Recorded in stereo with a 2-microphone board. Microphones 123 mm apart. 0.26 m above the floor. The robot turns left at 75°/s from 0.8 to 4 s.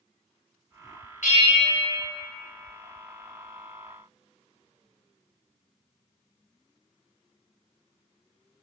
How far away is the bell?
About 1.0 m.